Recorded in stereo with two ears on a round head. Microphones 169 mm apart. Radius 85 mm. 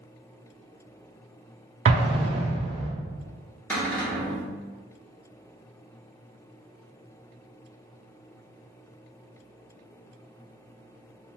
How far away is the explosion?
About 0.5 m.